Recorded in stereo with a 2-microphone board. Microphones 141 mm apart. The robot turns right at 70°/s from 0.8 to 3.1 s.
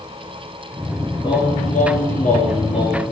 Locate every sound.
1.2 s singing: 30° left, 1.3 m; by 3.0 s 160° left, 1.3 m